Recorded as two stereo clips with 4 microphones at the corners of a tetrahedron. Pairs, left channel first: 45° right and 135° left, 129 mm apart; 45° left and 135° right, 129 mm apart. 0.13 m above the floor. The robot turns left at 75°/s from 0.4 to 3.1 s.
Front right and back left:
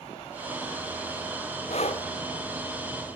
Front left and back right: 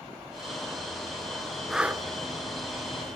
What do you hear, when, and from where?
1.7 s breathing: 45° right, 1.1 m; by 2.0 s 70° right, 1.1 m